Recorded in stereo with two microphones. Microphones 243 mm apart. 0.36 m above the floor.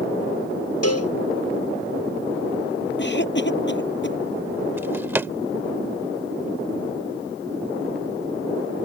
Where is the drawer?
10° right (ahead or behind).